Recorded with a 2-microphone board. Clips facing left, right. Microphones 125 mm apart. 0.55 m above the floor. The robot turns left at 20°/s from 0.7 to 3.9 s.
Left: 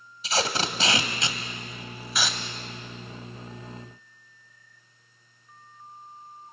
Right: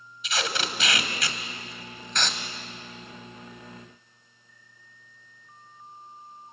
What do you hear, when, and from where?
0.2 s tape being pulled: 35° left (ahead or behind), 1.4 m; by 2.4 s centre (ahead or behind), 1.4 m